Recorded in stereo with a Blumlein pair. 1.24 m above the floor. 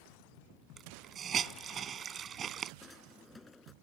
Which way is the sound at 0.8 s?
25° right.